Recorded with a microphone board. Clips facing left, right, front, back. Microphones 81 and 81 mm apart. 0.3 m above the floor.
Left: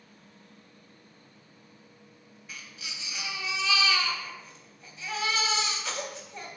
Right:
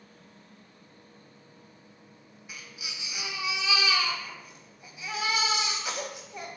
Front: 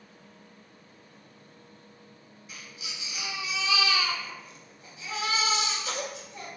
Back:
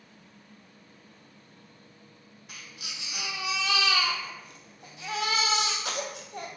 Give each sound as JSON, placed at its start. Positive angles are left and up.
{"t": 2.5, "sound": "a baby crying", "azimuth_deg": -165, "distance_m": 0.5}